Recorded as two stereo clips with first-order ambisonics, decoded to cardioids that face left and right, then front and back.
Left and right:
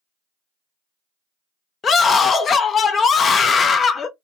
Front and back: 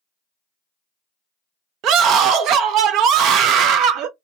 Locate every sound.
1.8 s a scream: 150° left, 0.6 m